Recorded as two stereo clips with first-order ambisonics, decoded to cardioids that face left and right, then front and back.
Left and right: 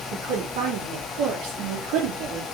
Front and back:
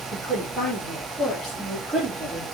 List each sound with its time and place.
0.1 s a woman speaking: 75° right, 4 m; by 2.4 s 105° right, 3.5 m